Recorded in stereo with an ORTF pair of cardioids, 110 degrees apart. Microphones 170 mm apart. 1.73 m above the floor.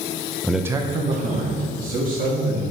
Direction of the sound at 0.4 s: 10° left.